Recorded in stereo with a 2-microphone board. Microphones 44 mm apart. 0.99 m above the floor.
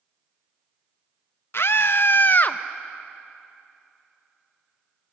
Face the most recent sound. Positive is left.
turn(degrees=35)  # may be behind; listen again after turning